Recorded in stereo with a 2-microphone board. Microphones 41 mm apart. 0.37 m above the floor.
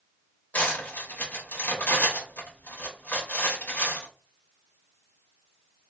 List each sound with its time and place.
0.5 s cutlery clinking: 45° left (ahead or behind), 0.8 m